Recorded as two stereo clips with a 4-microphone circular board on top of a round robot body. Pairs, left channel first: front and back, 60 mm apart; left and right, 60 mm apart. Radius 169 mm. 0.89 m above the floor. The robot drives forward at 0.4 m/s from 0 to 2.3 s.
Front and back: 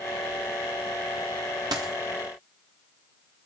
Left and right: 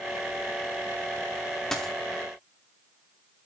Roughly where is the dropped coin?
Behind.